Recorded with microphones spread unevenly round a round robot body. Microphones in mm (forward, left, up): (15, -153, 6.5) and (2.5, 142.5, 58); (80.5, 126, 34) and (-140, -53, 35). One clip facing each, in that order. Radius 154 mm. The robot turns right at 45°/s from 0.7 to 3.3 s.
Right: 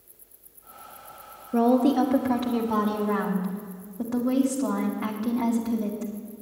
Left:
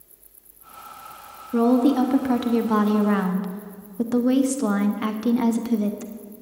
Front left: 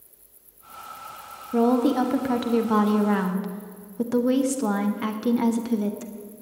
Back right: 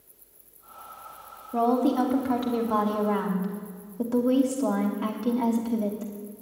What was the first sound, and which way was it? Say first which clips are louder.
A woman speaking: left 3 dB, front left 3 dB; 5° right.